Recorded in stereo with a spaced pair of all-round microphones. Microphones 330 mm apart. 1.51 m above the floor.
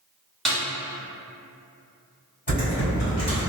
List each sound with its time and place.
0.5 s a snare drum: centre (ahead or behind), 1.0 m
2.5 s typing on a keyboard: 25° left (ahead or behind), 1.8 m